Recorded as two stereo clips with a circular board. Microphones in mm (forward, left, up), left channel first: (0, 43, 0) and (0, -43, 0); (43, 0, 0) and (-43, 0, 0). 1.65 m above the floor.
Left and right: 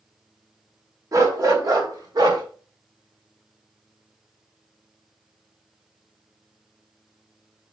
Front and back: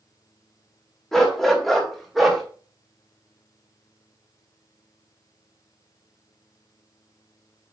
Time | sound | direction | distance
1.1 | a dog barking | 85° right | 1.4 m